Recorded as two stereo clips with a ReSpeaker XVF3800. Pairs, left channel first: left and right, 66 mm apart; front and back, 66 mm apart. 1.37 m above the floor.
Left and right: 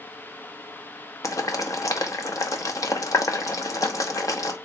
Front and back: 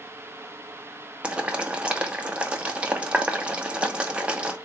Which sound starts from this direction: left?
Boiling, at 1.2 s.